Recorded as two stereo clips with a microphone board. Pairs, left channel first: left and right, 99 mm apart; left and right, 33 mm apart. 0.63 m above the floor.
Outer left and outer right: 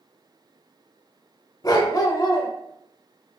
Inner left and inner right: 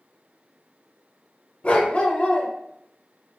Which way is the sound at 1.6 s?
40° left (ahead or behind).